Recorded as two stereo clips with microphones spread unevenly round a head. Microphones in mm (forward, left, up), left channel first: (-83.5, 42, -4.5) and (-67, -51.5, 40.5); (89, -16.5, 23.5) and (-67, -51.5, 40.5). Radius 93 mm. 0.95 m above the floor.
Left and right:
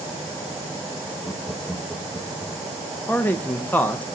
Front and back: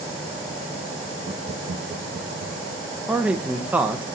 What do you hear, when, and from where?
1.2 s laughter: 135° left, 1.1 m; by 2.8 s 165° right, 1.8 m
3.1 s a man speaking: 110° left, 0.9 m